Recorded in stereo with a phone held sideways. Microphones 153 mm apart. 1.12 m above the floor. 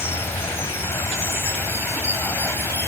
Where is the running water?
15° left (ahead or behind).